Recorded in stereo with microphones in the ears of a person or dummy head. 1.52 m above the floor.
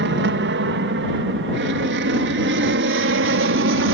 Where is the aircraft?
60° right (ahead or behind); by 3.9 s 65° right (ahead or behind).